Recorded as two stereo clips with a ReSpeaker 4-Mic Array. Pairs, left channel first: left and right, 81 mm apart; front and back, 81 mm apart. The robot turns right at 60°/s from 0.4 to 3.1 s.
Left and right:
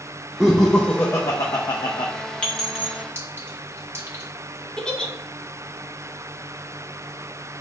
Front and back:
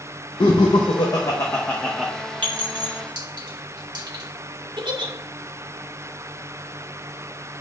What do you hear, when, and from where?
0.4 s laughter: 10° right, 0.6 m; by 2.1 s 95° left, 0.6 m
2.4 s a clink: 165° left, 1.4 m; by 4.2 s 150° right, 1.4 m
4.8 s a giggle: 170° left, 0.7 m